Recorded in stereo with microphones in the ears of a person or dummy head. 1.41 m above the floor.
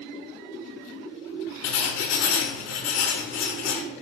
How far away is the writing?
About 0.6 m.